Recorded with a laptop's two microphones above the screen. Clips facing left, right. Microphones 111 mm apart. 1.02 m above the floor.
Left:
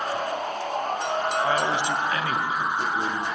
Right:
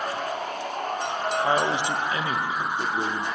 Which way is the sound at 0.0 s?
45° left (ahead or behind).